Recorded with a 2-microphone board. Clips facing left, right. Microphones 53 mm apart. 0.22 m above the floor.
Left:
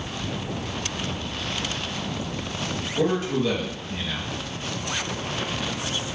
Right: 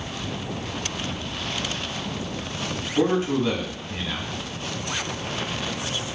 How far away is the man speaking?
About 1.4 m.